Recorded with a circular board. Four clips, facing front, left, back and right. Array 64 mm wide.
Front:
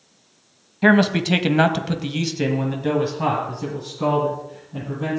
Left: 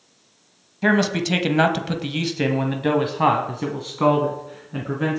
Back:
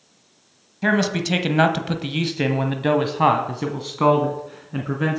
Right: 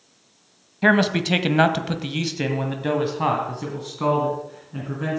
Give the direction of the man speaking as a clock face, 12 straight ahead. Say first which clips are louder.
Right 1 dB, front 4 dB; 1 o'clock.